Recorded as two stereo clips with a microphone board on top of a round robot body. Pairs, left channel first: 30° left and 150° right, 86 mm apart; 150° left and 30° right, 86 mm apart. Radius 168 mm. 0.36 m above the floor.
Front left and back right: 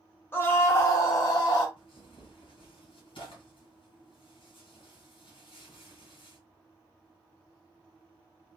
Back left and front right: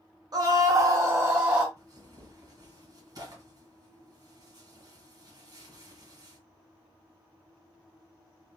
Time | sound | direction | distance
0.3 | a scream | 25° right | 1.4 m
1.8 | tearing paper | 10° left | 2.0 m